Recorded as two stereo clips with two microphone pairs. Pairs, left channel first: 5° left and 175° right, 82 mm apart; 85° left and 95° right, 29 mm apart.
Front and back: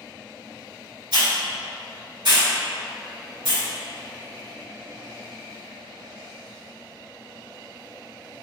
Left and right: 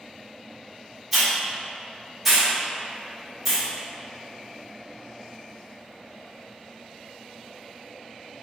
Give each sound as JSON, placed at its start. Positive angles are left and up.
{"t": 1.1, "sound": "a hiss", "azimuth_deg": -175, "distance_m": 1.6}